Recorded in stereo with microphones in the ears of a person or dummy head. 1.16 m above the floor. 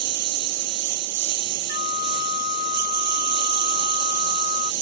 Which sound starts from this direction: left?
A flute, at 1.7 s.